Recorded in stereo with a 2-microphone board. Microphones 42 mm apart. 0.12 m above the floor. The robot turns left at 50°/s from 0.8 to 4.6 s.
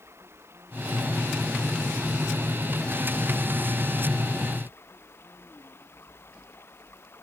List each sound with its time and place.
0.0 s running water: 105° right; by 7.2 s 65° left